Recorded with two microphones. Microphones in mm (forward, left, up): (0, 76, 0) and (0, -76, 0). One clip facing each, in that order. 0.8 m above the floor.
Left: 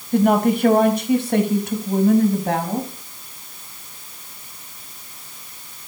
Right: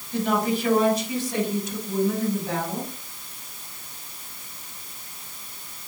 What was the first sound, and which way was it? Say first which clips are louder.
A woman speaking: left 7 dB; 55° left (ahead or behind).